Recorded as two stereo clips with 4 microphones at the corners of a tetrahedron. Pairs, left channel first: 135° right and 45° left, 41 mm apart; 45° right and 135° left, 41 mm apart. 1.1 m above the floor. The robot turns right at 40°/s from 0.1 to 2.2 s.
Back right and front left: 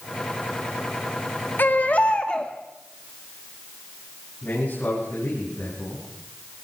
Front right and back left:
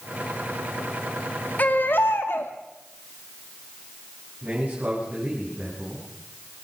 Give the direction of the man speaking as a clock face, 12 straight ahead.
6 o'clock.